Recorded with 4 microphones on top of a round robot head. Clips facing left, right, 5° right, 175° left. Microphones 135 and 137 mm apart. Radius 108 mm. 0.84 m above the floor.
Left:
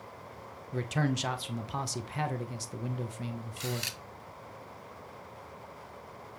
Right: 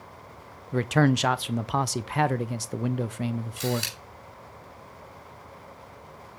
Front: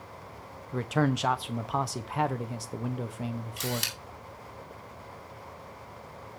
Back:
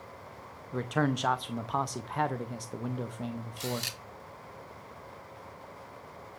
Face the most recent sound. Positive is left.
turn(degrees=-40)